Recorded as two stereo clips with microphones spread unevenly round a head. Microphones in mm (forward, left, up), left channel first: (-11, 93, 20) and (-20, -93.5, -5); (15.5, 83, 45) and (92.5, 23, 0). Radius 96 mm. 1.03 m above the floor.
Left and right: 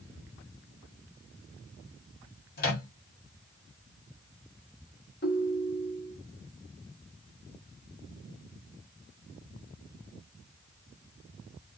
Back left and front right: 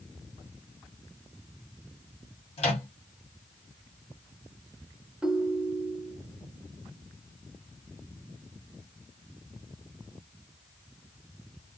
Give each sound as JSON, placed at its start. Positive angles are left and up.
{"t": 2.6, "sound": "a microwave", "azimuth_deg": 130, "distance_m": 1.2}
{"t": 5.2, "sound": "a ringtone", "azimuth_deg": 50, "distance_m": 1.1}